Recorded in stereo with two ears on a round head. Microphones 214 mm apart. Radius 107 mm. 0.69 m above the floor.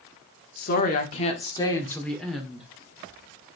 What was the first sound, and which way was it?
A woman speaking, 45° left (ahead or behind).